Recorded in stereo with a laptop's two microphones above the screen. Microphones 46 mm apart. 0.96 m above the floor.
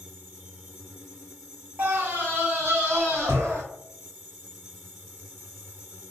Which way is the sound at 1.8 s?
45° right (ahead or behind).